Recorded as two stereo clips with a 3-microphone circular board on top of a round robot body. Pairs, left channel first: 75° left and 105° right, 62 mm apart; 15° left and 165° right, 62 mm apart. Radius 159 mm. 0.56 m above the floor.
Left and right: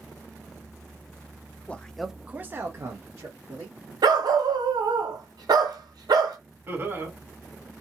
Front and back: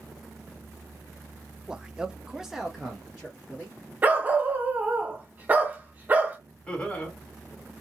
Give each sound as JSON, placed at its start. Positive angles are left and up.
{"t": 1.7, "sound": "a man speaking", "azimuth_deg": 125, "distance_m": 0.7}
{"t": 4.0, "sound": "a dog barking", "azimuth_deg": -100, "distance_m": 0.6}
{"t": 6.7, "sound": "laughter", "azimuth_deg": -55, "distance_m": 1.8}